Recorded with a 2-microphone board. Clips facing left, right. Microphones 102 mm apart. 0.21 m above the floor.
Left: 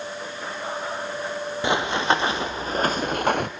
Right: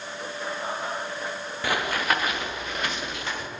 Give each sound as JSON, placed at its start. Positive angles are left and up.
{"t": 1.6, "sound": "running footsteps", "side_deg": 25, "distance_m": 3.0}